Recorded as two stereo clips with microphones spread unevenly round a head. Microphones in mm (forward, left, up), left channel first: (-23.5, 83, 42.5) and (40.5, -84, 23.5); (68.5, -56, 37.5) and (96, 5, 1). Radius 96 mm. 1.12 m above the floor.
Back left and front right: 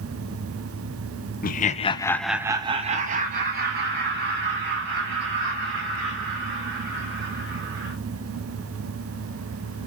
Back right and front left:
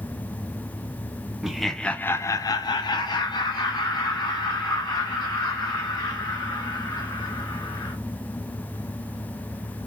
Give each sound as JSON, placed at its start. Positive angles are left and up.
{"t": 1.4, "sound": "laughter", "azimuth_deg": 105, "distance_m": 0.6}